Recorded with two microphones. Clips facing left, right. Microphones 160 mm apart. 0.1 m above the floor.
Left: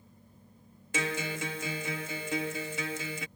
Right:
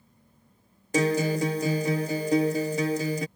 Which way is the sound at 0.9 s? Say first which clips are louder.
Right 11 dB; 40° right (ahead or behind).